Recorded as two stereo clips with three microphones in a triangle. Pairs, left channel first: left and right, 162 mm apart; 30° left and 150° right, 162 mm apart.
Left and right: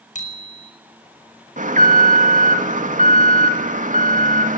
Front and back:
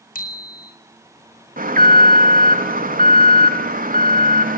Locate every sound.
0.1 s a bicycle bell: 55° left, 5.5 m
1.6 s an alarm: 125° right, 3 m